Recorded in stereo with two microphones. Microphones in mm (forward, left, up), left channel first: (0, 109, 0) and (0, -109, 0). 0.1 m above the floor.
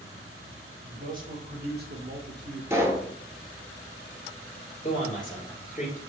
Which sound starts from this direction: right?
A man speaking, at 0.8 s.